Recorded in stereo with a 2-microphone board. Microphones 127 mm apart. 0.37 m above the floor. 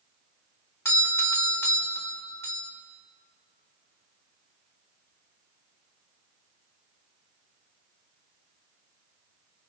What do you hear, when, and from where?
0.8 s a doorbell: 20° left (ahead or behind), 1.3 m